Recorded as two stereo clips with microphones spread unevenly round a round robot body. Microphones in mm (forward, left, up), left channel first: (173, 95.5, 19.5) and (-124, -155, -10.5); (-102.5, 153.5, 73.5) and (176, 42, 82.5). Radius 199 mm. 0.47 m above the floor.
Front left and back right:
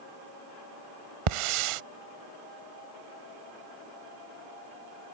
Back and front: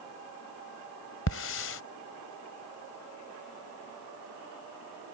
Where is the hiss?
145° right.